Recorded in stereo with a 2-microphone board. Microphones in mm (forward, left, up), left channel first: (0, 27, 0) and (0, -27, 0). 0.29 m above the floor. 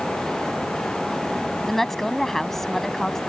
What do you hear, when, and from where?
1.6 s a woman speaking: 5° left (ahead or behind)